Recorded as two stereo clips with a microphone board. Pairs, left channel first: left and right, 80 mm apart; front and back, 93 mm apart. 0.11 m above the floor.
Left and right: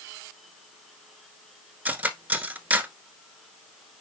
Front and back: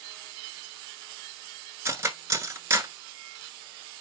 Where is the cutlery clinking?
145° right, 1.0 m.